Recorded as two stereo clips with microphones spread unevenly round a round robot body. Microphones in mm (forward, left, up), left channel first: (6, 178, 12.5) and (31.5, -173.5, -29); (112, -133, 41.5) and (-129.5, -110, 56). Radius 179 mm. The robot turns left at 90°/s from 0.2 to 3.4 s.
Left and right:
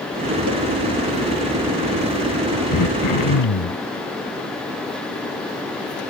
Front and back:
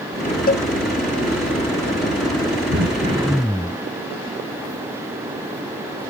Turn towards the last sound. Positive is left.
turn(degrees=75)